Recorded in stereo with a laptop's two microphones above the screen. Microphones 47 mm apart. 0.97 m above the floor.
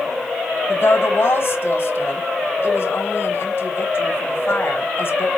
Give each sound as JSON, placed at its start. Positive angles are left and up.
{"t": 0.7, "sound": "a woman speaking", "side_deg": 50, "distance_m": 0.8}